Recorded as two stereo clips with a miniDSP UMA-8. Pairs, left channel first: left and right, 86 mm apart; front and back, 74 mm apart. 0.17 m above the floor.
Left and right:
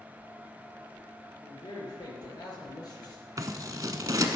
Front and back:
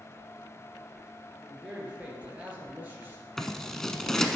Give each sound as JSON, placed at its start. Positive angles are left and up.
{"t": 1.4, "sound": "a man speaking", "azimuth_deg": 100, "distance_m": 3.0}
{"t": 3.4, "sound": "scissors", "azimuth_deg": -80, "distance_m": 0.7}